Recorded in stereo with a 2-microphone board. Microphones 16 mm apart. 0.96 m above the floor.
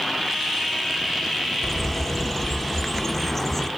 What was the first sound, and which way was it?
A bird, 10° left (ahead or behind).